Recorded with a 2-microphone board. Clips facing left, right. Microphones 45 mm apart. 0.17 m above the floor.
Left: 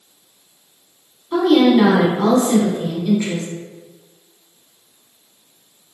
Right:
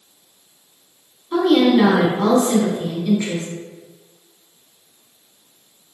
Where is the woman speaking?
5° right (ahead or behind), 1.0 m.